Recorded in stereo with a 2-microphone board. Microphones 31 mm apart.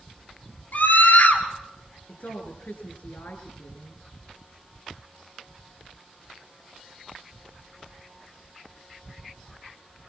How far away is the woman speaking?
About 3.5 m.